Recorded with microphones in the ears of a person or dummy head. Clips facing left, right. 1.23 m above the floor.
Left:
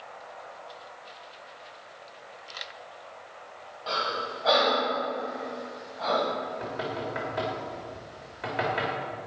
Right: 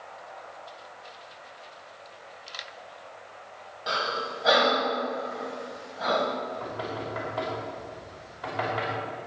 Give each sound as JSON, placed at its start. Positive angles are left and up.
{"t": 3.9, "sound": "breathing", "side_deg": -10, "distance_m": 1.4}
{"t": 6.4, "sound": "knocking", "side_deg": 25, "distance_m": 3.0}